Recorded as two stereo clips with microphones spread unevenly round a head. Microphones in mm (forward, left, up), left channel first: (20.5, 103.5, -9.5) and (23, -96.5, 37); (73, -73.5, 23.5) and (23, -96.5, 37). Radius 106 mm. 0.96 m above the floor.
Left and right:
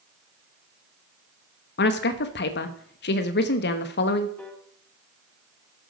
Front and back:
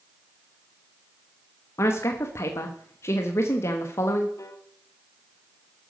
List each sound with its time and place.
1.8 s a woman speaking: 65° left, 1.0 m
4.4 s a piano: 10° left, 2 m